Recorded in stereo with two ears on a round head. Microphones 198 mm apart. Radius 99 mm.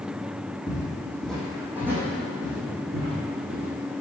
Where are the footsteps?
20° left (ahead or behind), 1.7 m; by 4.0 s 40° right (ahead or behind), 2.5 m.